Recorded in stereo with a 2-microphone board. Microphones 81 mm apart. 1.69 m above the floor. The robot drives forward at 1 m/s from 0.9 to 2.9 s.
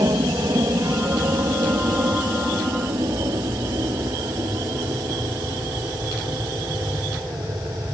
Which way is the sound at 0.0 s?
55° right (ahead or behind).